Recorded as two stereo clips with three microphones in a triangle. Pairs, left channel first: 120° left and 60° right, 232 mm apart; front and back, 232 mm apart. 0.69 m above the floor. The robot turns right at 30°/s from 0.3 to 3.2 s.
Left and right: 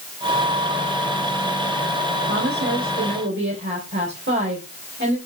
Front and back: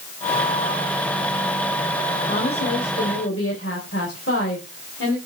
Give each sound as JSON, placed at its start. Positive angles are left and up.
{"t": 2.3, "sound": "a woman speaking", "azimuth_deg": -50, "distance_m": 4.0}